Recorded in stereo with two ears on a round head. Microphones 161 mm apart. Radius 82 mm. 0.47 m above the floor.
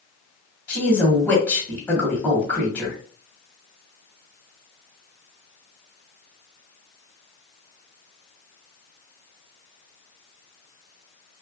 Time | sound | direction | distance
0.7 | a woman speaking | 5° left (ahead or behind) | 1.2 m